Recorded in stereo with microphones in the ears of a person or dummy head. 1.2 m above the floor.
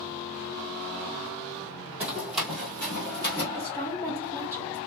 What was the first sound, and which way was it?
Running footsteps, 10° right (ahead or behind).